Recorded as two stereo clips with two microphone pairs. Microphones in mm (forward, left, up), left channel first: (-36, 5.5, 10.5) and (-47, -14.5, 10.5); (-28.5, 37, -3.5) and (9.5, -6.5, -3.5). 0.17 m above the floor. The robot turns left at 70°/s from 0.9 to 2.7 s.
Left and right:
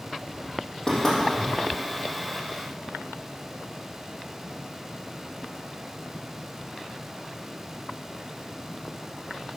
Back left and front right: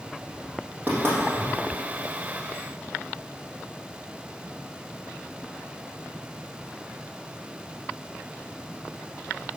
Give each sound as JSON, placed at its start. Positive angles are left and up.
{"t": 0.9, "sound": "knocking", "azimuth_deg": 5, "distance_m": 4.5}